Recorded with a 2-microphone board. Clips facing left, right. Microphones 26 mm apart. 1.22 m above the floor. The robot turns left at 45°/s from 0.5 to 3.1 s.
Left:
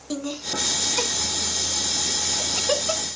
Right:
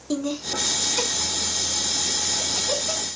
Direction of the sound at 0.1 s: 5° right (ahead or behind).